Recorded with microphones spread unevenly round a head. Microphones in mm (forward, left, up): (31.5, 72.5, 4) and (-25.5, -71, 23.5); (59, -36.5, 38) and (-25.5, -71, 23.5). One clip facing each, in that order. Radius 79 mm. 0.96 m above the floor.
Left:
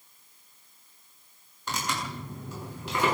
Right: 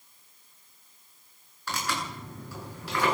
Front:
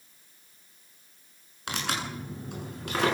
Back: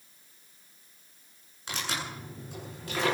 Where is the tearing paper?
Straight ahead, 10 m.